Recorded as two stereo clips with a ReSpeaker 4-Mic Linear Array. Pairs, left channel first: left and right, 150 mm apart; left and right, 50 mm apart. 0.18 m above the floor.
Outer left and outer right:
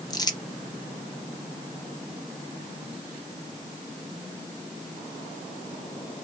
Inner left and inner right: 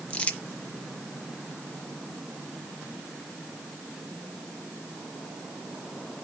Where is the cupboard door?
No cupboard door in this recording.